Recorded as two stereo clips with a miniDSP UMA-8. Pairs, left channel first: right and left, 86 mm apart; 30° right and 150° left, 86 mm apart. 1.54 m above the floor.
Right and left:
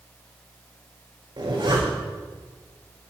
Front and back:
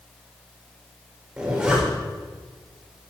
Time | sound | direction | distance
1.4 | a zipper | 70° left | 5.5 m